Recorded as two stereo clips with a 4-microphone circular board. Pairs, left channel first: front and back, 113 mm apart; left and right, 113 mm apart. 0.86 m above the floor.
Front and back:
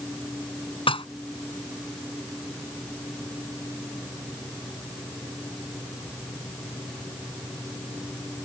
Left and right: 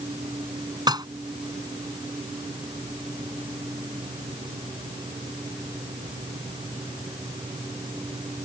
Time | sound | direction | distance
0.9 | dishes clattering | 40° right | ?